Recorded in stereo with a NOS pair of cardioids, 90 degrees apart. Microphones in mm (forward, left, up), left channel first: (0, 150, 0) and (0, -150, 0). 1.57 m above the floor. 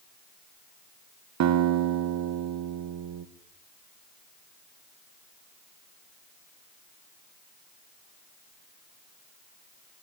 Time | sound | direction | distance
1.4 | a guitar | 60° right | 1.5 m